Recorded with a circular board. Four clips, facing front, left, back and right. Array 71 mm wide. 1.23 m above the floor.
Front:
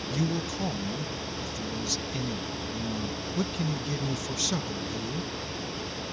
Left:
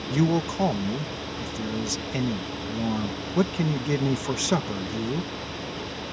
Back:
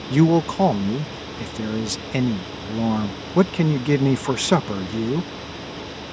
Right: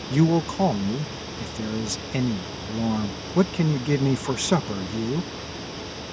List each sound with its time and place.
0.1 s a man speaking: 170° right